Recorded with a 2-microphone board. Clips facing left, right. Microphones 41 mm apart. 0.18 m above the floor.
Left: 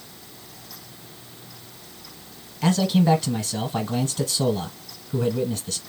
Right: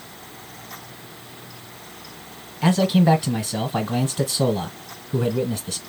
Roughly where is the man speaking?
Centre.